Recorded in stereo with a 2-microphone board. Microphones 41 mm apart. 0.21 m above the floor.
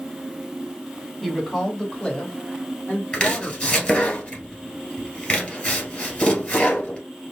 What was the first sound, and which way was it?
A woman speaking, 10° left (ahead or behind).